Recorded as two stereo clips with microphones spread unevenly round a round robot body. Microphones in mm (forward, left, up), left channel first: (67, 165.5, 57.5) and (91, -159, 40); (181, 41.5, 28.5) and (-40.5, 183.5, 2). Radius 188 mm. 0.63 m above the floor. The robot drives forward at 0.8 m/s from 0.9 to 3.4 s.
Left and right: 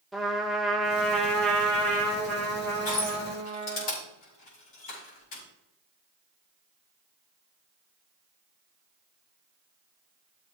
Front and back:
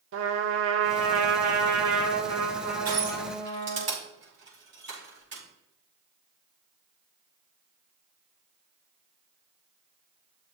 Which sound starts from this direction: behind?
A trumpet, at 0.1 s.